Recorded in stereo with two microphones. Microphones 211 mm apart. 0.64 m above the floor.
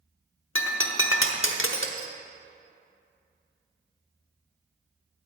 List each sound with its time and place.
0.6 s breaking glass: 75° left (ahead or behind), 1.0 m